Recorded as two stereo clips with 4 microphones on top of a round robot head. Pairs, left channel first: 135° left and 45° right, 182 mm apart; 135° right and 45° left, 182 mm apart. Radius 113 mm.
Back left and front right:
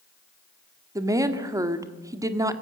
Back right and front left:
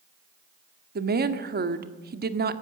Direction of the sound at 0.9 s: 25° left.